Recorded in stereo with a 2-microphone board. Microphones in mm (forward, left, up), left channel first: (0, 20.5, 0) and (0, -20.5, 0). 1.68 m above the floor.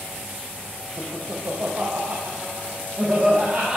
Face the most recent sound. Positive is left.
turn(degrees=-25)  # may be behind; listen again after turning